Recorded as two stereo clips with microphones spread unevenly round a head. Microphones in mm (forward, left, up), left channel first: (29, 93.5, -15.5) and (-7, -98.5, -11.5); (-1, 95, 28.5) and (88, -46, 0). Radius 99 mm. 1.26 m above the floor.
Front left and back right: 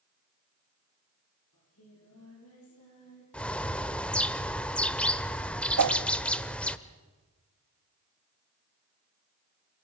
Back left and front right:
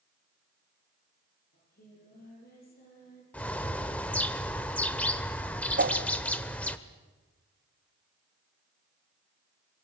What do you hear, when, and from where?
1.5 s singing: 95° left, 9.5 m
3.3 s a bird: 160° left, 1.0 m
5.8 s a whoosh: 105° right, 0.8 m